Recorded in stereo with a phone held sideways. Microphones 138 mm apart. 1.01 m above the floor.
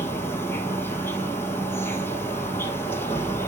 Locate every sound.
0.0 s an insect: 15° left (ahead or behind), 2.5 m